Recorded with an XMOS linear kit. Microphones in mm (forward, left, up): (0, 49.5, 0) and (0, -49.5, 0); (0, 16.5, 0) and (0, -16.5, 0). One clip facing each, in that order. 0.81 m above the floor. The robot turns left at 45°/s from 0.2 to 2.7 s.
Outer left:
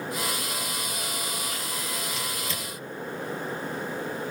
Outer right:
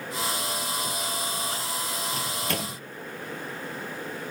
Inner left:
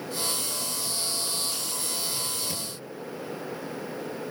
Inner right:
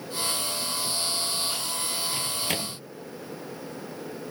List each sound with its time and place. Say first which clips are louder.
2.1 s a microwave: outer right 3 dB, inner right 3 dB; 40° right (ahead or behind); by 2.8 s 65° right (ahead or behind)